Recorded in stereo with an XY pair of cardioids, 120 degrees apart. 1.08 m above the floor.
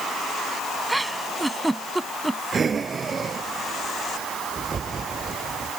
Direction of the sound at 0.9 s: 5° right.